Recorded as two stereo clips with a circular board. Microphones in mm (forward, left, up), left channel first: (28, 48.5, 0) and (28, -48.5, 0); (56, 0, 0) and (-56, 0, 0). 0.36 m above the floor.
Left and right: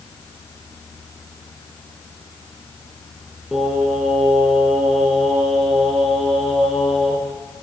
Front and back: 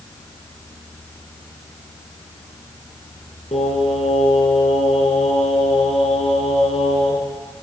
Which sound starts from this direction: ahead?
Singing, at 3.5 s.